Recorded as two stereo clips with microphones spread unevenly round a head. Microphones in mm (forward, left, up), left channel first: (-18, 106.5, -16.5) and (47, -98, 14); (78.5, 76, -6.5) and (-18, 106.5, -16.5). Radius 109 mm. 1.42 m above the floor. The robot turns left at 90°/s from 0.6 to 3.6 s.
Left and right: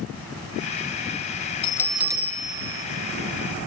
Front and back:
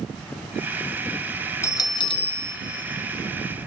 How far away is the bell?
About 1.0 m.